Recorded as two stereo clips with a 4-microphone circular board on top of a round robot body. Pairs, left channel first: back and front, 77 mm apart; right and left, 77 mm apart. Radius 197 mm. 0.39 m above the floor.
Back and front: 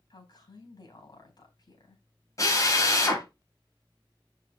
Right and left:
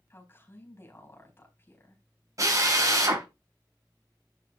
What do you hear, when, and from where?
0.1 s a woman speaking: 150° right, 4.5 m
2.4 s a drill: 135° left, 3 m